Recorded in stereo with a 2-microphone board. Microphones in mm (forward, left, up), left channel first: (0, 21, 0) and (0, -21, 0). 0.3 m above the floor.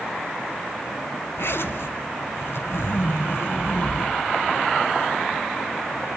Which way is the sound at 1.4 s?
65° left (ahead or behind).